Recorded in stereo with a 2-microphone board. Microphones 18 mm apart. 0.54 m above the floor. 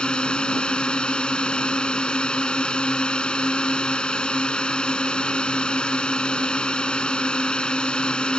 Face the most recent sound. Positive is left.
turn(degrees=70)  # may be behind; listen again after turning